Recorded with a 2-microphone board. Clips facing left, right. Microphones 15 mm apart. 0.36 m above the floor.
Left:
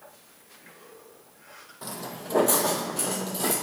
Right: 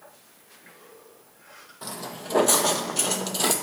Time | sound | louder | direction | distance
1.8 | footsteps | right 1 dB | 5° right (ahead or behind) | 0.8 m